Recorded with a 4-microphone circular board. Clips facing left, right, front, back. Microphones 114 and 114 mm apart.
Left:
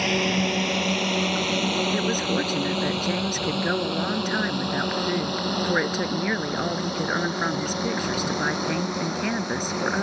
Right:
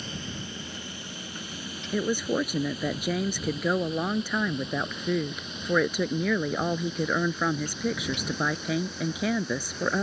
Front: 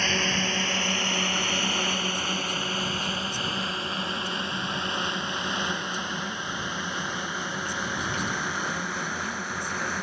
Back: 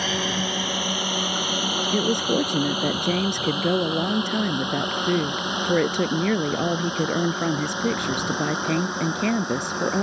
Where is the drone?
100° left; by 10.0 s 110° left.